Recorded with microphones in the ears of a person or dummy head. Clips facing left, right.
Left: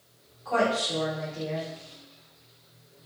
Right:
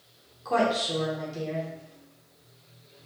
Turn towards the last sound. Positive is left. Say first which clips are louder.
# right 1 dB
turn(degrees=-55)  # may be behind; listen again after turning